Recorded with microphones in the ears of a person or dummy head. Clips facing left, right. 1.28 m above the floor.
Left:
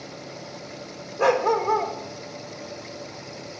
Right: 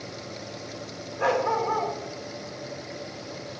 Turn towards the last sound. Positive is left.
turn(degrees=60)  # may be behind; listen again after turning